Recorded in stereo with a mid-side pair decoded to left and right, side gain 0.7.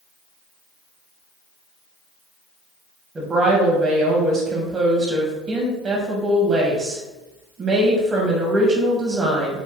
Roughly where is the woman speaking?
Ahead right.